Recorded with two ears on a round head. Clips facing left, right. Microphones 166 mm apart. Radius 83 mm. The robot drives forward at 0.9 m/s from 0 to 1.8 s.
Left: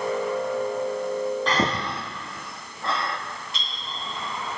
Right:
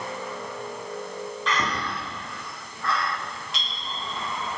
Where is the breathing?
30° left (ahead or behind), 0.7 m; by 3.2 s 20° left (ahead or behind), 1.0 m.